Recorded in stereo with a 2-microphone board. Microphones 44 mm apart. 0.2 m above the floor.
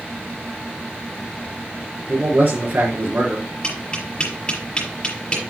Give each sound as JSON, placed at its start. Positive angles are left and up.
{"t": 2.1, "sound": "a man speaking", "side_deg": -50, "distance_m": 3.5}
{"t": 3.6, "sound": "tapping", "side_deg": 20, "distance_m": 5.5}